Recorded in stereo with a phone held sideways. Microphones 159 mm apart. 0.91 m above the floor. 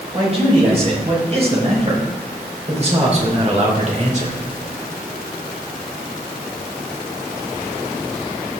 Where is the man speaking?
35° right (ahead or behind), 5 m; by 4.4 s 45° right (ahead or behind), 2.5 m.